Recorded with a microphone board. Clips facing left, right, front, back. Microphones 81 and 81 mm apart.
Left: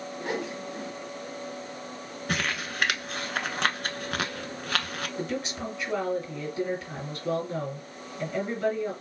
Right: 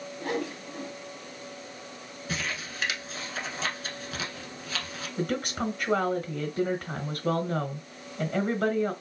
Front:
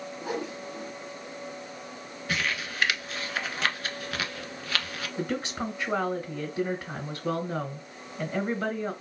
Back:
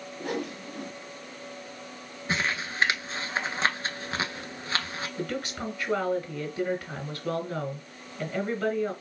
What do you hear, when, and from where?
0.2 s a whoosh: 155° left, 2.5 m
2.3 s crumpling: 120° left, 0.7 m
5.2 s a woman speaking: 65° right, 2 m